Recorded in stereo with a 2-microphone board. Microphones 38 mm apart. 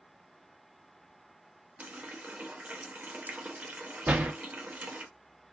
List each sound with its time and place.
1.8 s a running tap: 55° right (ahead or behind), 0.6 m
4.1 s a door slam: 55° right (ahead or behind), 0.7 m